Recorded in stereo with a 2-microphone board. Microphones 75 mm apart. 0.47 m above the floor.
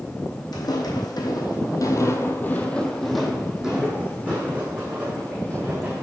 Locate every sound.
0.5 s footsteps: 65° left (ahead or behind), 1.2 m; by 6.0 s 30° right (ahead or behind), 2.5 m